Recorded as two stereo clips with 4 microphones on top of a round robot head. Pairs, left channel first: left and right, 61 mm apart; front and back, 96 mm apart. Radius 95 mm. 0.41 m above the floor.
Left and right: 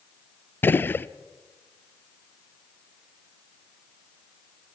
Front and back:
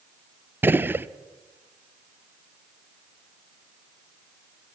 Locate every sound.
0.6 s a gunshot: 120° left, 0.9 m